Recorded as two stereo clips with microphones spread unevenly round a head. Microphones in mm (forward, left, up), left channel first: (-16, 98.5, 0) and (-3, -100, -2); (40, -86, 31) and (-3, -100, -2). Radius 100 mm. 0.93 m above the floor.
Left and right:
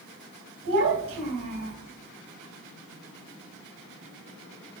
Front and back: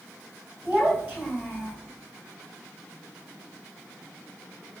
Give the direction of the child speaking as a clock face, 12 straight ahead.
4 o'clock.